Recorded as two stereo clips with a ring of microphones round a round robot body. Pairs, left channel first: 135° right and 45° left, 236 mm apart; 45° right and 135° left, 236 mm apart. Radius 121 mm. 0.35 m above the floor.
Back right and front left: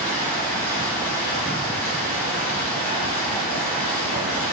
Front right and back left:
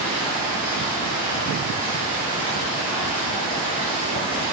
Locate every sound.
0.0 s running water: 110° right, 3 m